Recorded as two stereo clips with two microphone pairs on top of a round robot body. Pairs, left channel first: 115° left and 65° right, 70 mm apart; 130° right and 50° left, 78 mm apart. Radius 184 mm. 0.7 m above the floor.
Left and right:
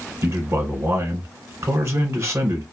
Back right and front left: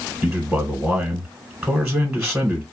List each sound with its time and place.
0.2 s a man speaking: 25° right, 1.1 m